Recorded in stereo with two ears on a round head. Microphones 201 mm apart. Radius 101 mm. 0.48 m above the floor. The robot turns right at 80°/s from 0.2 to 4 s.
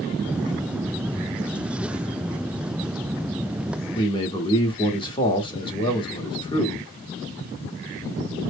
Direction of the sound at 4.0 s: 25° left (ahead or behind).